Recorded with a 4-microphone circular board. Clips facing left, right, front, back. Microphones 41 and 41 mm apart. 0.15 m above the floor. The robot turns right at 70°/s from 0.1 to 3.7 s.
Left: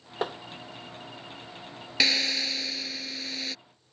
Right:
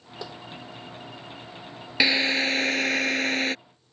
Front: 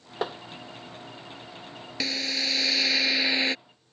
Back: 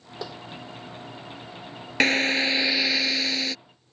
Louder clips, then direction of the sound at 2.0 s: Right 5 dB, back 9 dB; 160° right.